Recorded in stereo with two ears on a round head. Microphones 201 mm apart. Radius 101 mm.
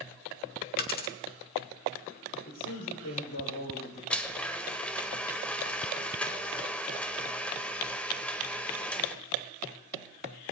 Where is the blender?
5° left (ahead or behind), 1.1 m.